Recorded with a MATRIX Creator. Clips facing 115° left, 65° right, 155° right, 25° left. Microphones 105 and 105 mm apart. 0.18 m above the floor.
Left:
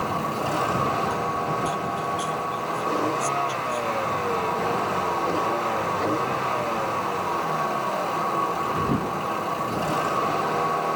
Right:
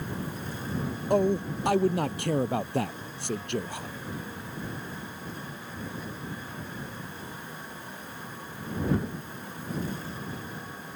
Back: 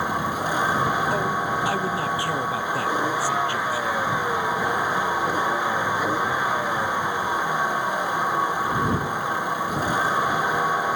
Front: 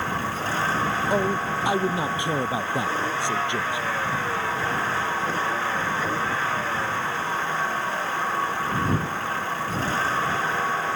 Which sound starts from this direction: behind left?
A vehicle, at 0.0 s.